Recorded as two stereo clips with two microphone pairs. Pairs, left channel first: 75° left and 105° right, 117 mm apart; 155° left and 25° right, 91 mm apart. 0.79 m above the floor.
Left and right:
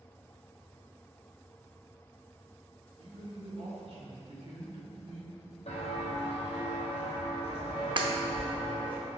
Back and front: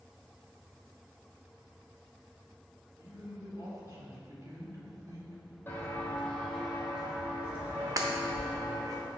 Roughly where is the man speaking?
Right.